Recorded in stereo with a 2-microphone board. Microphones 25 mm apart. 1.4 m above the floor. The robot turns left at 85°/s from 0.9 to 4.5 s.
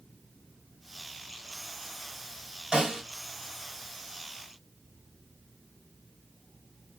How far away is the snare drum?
About 2 m.